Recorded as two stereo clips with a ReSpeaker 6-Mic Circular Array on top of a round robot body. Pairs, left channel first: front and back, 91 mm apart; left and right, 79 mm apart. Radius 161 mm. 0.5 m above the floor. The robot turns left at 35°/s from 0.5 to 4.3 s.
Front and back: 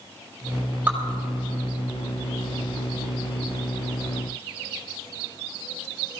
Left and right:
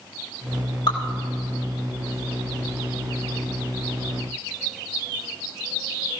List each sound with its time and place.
0.9 s dripping: 110° left, 4 m; by 1.0 s 105° left, 4 m